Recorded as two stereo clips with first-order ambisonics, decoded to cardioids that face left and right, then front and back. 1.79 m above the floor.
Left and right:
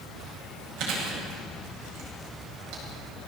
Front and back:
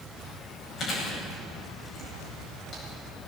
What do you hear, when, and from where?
0.8 s chewing: 60° right, 9.5 m